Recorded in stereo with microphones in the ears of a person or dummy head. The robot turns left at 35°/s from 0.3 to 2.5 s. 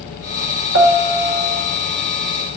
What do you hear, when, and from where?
0.7 s a piano: 70° right, 1.1 m; by 1.6 s 100° right, 1.1 m